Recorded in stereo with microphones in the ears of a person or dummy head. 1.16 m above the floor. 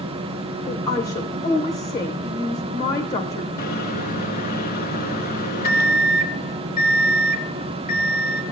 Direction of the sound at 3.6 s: 50° left (ahead or behind).